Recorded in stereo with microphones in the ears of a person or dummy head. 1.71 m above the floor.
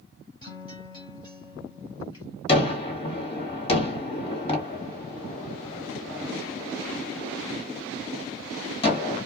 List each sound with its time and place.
0.4 s a guitar: 25° left (ahead or behind), 0.7 m
2.5 s a gunshot: 40° left (ahead or behind), 1.7 m